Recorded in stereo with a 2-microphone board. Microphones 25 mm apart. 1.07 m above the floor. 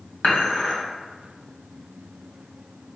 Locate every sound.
0.2 s dishes clattering: 70° left (ahead or behind), 1.9 m